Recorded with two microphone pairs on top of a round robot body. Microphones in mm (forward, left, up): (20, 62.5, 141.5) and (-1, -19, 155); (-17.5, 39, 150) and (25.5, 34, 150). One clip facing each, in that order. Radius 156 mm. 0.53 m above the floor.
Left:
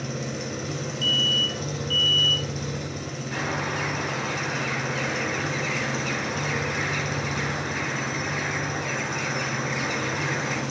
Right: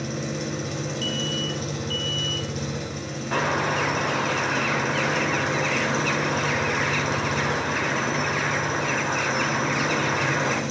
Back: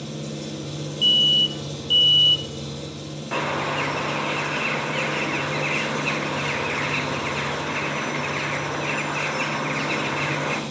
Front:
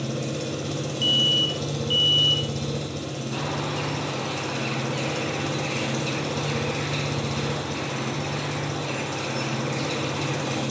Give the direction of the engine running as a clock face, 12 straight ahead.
12 o'clock.